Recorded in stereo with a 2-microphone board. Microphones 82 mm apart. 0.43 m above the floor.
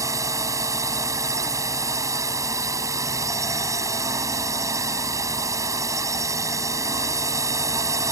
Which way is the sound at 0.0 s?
40° right (ahead or behind).